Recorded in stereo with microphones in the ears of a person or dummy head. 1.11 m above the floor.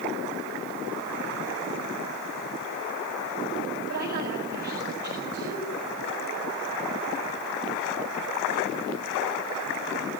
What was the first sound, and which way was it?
A woman speaking, 50° right (ahead or behind).